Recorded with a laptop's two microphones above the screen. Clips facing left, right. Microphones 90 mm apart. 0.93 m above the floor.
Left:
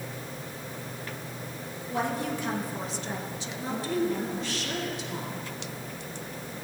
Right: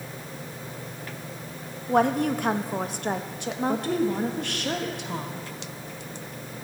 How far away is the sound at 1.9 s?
About 0.7 m.